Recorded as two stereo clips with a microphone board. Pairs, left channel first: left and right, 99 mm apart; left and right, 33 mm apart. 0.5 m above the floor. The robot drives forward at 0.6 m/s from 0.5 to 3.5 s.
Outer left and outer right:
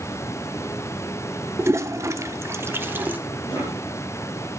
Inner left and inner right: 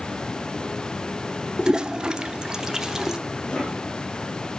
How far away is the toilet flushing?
About 0.6 m.